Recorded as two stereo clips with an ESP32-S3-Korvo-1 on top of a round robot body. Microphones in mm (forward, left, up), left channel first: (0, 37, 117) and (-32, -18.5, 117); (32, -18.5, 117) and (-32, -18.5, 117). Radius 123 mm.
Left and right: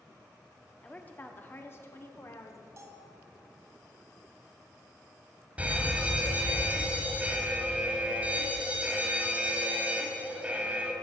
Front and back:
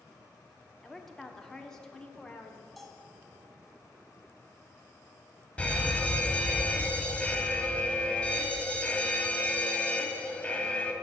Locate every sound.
0.8 s a woman speaking: 85° left, 1.4 m; by 2.7 s 75° left, 1.9 m
2.8 s a bell: 90° right, 2.5 m
5.6 s a fire alarm: 65° right, 2 m